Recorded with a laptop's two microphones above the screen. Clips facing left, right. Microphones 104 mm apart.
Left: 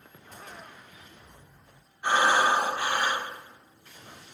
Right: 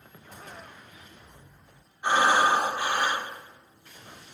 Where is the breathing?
15° right (ahead or behind), 1.2 m.